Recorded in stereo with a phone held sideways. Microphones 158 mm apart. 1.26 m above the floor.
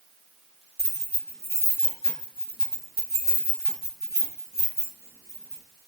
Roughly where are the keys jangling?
Right.